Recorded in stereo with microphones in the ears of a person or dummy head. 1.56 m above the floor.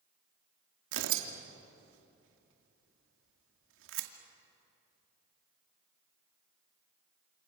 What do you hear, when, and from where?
0.9 s tearing paper: 70° right (ahead or behind), 2.5 m